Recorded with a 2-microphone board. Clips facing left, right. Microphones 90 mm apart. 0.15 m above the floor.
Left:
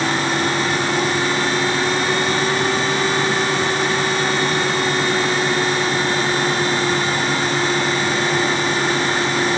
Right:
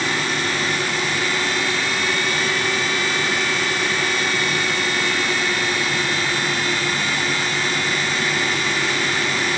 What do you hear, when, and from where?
Only background noise.